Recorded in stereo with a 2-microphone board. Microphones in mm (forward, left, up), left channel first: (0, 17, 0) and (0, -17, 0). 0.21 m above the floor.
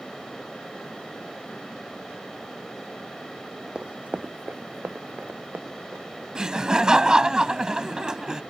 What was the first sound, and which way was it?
Running footsteps, 25° right (ahead or behind).